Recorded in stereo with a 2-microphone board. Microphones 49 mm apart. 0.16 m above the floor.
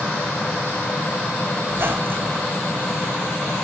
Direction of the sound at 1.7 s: 45° right (ahead or behind).